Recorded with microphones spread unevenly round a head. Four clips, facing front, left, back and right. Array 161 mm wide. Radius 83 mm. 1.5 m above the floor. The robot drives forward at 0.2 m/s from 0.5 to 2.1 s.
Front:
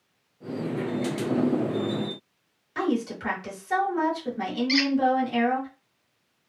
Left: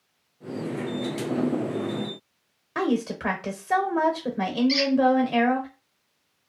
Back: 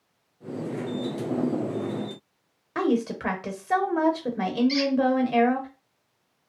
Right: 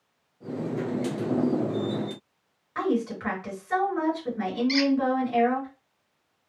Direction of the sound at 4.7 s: 35° right.